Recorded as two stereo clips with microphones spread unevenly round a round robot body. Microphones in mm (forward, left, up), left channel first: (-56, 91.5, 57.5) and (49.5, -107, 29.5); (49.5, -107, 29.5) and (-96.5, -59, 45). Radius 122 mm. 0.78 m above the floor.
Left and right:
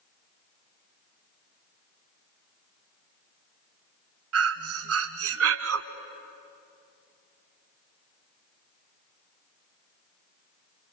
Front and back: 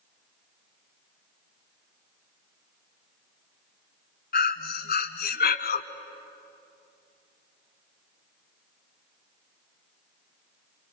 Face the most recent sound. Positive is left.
turn(degrees=-30)